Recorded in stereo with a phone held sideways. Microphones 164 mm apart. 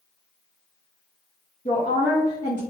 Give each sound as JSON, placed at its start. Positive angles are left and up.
{"t": 1.6, "sound": "a woman speaking", "side_deg": 45, "distance_m": 0.9}